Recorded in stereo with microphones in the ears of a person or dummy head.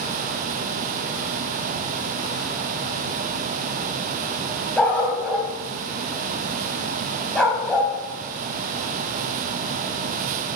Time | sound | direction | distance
4.8 | a dog barking | 15° left (ahead or behind) | 3.5 m